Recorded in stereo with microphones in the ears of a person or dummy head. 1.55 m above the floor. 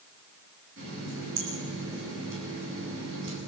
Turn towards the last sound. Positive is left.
turn(degrees=-70)  # may be behind; listen again after turning